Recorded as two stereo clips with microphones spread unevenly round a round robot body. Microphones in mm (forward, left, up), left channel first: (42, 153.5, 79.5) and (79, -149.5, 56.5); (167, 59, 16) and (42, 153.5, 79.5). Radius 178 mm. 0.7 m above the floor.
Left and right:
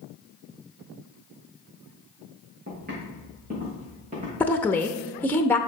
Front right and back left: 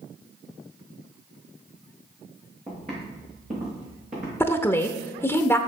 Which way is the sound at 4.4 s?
10° left.